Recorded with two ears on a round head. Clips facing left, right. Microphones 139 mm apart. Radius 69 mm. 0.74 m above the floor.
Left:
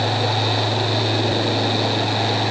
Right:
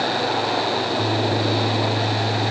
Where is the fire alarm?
I don't hear a fire alarm.